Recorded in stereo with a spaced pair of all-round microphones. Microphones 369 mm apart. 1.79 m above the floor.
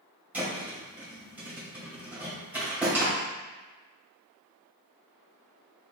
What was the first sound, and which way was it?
A thud, 5° right (ahead or behind).